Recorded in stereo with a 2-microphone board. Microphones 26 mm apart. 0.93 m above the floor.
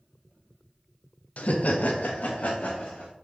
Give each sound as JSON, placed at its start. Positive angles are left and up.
{"t": 1.4, "sound": "laughter", "side_deg": 60, "distance_m": 0.5}